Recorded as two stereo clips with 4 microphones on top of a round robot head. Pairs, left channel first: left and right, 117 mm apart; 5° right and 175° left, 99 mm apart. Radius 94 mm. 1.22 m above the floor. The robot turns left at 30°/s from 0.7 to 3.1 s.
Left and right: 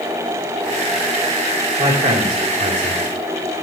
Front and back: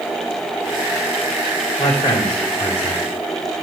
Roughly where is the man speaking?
Ahead right.